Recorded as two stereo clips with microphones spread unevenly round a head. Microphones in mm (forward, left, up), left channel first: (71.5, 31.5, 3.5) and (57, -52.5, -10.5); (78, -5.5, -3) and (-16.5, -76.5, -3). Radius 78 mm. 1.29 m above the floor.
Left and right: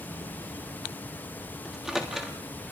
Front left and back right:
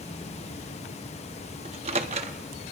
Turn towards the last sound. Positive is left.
turn(degrees=170)